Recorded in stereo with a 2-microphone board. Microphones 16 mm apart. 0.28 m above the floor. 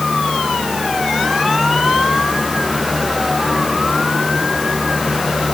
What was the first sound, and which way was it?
Only background noise.